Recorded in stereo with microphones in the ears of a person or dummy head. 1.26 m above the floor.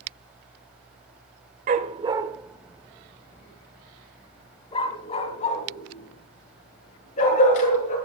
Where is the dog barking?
45° right (ahead or behind), 1.2 m; by 8.0 s 40° left (ahead or behind), 6.5 m.